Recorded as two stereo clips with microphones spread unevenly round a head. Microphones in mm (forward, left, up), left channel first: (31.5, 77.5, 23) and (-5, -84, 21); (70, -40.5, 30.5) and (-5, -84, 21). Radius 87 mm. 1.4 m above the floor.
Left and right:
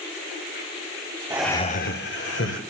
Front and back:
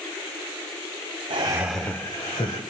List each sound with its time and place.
1.3 s laughter: 175° right, 0.6 m; by 2.6 s 85° left, 1.7 m